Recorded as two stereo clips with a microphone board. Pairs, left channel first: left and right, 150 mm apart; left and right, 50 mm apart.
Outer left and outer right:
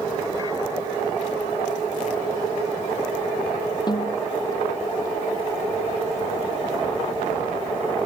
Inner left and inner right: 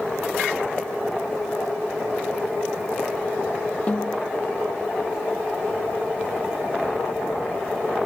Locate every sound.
3.9 s a snare drum: 30° left (ahead or behind)